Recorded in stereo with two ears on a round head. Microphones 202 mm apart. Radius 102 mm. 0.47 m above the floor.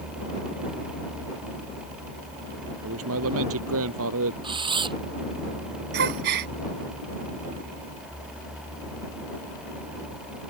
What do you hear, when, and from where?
2.8 s a man speaking: 70° right (ahead or behind)
4.4 s a camera shutter: 25° right (ahead or behind)
5.9 s a gasp: 50° right (ahead or behind)